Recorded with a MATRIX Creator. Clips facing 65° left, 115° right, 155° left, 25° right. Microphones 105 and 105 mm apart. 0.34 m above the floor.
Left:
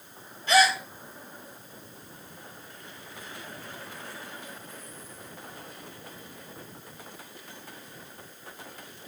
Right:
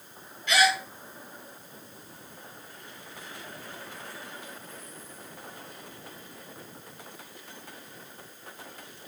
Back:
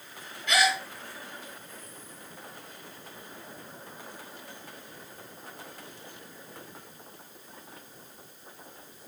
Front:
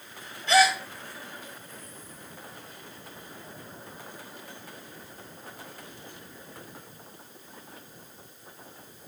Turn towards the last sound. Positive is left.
turn(degrees=25)